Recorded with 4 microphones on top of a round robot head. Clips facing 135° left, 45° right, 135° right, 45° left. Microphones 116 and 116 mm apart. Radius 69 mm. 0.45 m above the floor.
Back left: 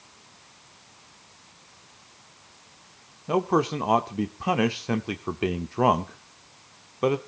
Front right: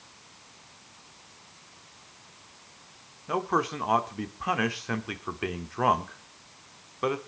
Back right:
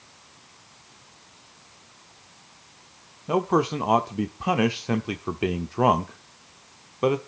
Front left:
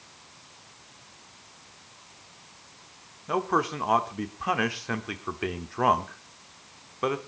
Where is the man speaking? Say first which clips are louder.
Back left 5 dB, back right 4 dB; straight behind, 0.9 m.